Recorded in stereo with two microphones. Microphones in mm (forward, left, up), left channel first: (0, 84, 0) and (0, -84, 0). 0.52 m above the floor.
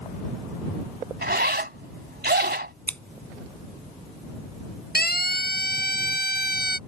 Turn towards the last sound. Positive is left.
turn(degrees=65)  # may be behind; listen again after turning